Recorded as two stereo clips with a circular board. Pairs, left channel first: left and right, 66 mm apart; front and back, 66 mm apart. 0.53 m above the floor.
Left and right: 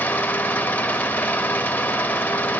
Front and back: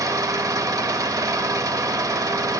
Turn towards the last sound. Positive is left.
turn(degrees=155)